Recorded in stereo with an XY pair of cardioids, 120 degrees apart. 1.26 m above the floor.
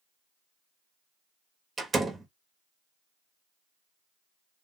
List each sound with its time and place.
1.8 s a door slam: 20° right, 1.2 m